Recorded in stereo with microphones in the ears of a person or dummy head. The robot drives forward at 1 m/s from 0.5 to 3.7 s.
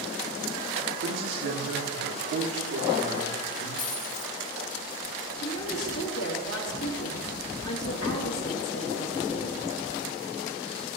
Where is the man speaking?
75° right (ahead or behind), 2.5 m; by 3.7 s 50° right (ahead or behind), 3 m.